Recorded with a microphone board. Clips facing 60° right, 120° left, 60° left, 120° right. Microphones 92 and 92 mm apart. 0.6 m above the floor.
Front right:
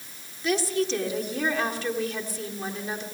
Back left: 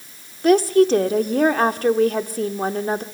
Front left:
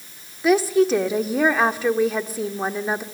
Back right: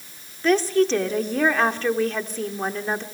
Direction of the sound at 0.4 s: 140° left.